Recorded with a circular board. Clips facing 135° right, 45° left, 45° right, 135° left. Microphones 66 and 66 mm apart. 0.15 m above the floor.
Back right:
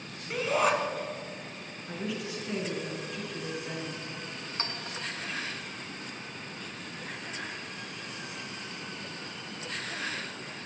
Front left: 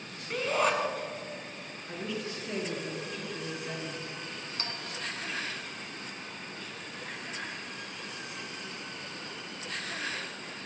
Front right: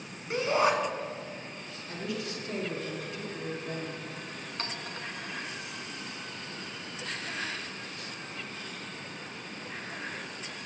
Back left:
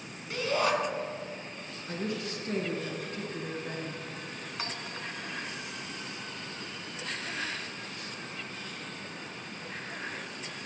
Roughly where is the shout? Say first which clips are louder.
Back right 1 dB, front right 3 dB; ahead right.